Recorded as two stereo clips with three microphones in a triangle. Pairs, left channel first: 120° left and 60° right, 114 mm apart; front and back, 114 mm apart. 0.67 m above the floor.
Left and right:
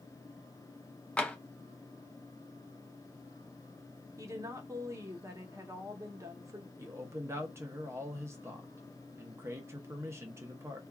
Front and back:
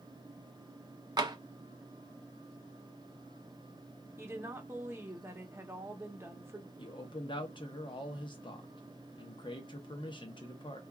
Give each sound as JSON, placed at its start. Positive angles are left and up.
{"t": 1.2, "sound": "tapping", "azimuth_deg": -170, "distance_m": 0.5}
{"t": 4.2, "sound": "a woman speaking", "azimuth_deg": -115, "distance_m": 0.8}
{"t": 6.8, "sound": "a man speaking", "azimuth_deg": -5, "distance_m": 0.7}